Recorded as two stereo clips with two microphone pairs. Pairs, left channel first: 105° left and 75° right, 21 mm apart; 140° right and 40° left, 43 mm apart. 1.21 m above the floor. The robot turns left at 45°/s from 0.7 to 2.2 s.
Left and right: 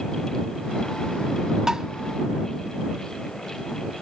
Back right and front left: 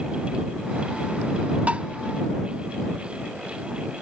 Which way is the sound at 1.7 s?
10° right.